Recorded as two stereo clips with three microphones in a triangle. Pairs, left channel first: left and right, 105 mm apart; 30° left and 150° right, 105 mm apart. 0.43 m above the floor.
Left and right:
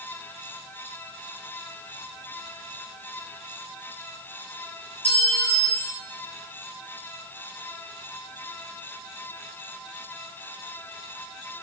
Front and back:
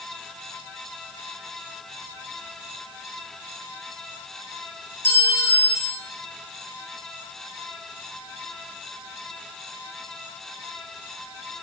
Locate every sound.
5.0 s a clink: 95° left, 6.5 m